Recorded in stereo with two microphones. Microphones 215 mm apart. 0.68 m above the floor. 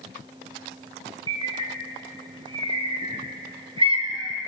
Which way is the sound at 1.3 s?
25° right (ahead or behind).